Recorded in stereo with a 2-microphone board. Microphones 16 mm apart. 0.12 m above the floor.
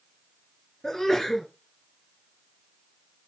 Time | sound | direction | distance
0.8 | a sneeze | 30° left (ahead or behind) | 2 m